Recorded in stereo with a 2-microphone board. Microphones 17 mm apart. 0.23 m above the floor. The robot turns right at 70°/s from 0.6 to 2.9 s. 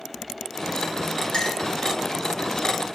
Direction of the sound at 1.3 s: 45° left (ahead or behind).